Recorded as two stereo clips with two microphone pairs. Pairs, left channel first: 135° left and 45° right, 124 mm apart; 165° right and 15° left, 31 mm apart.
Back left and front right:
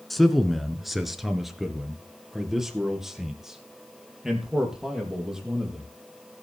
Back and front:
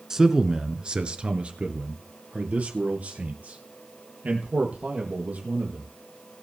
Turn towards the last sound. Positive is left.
turn(degrees=40)